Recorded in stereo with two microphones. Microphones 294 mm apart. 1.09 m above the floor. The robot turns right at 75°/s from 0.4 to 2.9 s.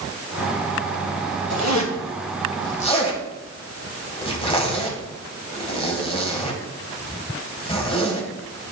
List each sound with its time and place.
1.5 s a zipper: 55° left (ahead or behind), 2 m; by 8.3 s 20° left (ahead or behind), 2 m